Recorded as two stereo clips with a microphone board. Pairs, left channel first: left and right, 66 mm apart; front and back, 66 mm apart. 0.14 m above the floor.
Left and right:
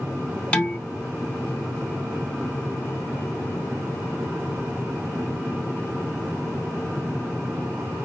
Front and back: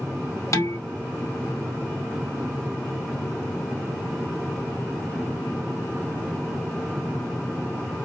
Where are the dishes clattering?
20° left, 1.5 m.